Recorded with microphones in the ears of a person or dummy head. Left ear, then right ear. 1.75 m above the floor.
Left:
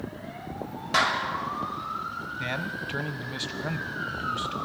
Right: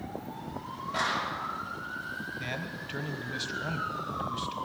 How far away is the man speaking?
About 1.2 m.